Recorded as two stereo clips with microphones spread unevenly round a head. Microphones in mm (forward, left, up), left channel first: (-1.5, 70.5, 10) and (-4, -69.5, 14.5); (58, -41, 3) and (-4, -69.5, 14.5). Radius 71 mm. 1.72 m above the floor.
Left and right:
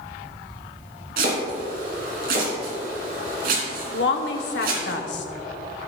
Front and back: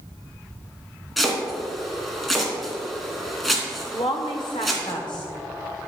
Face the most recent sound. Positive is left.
turn(degrees=80)